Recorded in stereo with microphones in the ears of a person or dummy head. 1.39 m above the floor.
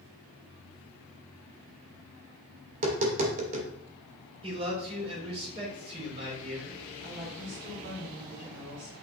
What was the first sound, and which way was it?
Tapping, 40° right (ahead or behind).